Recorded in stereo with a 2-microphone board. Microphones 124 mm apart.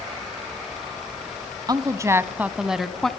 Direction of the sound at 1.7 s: 35° right (ahead or behind).